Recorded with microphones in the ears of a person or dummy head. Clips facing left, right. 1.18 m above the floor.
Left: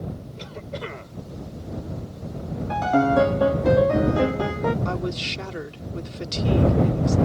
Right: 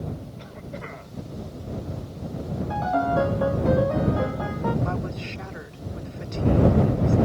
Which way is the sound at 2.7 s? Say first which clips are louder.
Left 4 dB; 30° left (ahead or behind).